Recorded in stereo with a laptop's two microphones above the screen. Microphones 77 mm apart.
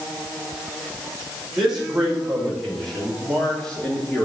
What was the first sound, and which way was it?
A man speaking, 10° right (ahead or behind).